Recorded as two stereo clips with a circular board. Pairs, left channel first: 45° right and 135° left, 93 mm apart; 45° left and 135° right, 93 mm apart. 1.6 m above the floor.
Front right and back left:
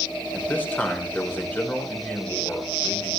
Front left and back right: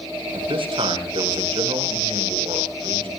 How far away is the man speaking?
About 6.5 m.